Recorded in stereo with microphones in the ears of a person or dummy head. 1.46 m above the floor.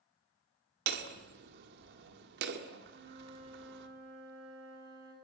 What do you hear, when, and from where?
0.9 s hammering: 65° right (ahead or behind), 1.9 m
2.9 s a flute: 65° right (ahead or behind), 7 m